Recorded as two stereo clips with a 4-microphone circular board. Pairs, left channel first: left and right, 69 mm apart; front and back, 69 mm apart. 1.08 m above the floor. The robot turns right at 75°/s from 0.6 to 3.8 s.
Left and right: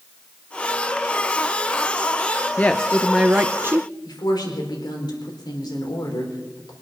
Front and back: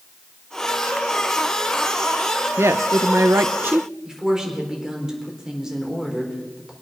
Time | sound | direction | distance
2.6 | a woman speaking | 145° left | 0.5 m
4.0 | a woman speaking | 100° left | 4 m